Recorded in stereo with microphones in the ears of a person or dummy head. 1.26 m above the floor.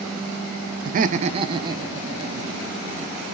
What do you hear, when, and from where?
0.8 s laughter: 40° right (ahead or behind), 0.6 m; by 3.2 s 10° right (ahead or behind), 2.5 m